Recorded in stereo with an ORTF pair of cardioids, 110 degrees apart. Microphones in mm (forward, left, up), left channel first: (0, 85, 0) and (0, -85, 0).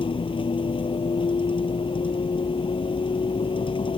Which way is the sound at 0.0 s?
30° left.